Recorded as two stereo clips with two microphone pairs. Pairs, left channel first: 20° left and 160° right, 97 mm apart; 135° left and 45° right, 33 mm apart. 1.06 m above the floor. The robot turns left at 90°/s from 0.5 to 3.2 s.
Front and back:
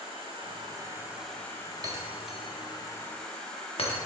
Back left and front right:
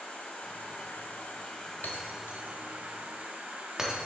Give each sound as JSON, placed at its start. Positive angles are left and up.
{"t": 0.0, "sound": "an insect", "azimuth_deg": 180, "distance_m": 2.0}
{"t": 1.8, "sound": "breaking glass", "azimuth_deg": 150, "distance_m": 1.2}